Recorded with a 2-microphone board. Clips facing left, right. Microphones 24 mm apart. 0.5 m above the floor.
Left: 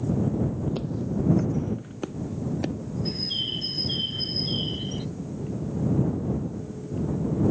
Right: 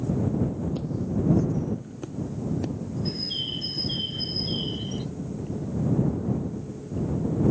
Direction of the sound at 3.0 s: 5° left (ahead or behind).